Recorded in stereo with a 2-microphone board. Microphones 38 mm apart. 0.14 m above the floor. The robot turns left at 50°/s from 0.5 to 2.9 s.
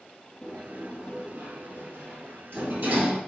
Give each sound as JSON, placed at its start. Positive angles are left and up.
{"t": 0.4, "sound": "a sliding door", "side_deg": 5, "distance_m": 4.0}